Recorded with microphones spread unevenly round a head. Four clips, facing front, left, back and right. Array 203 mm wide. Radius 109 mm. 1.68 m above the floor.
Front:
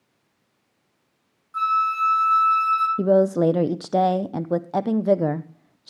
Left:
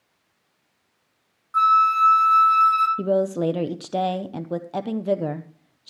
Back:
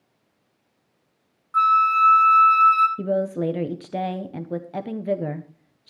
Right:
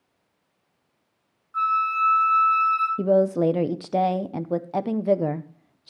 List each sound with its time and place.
1.5 s a flute: 130° left, 1.9 m
3.0 s a woman speaking: 5° right, 0.7 m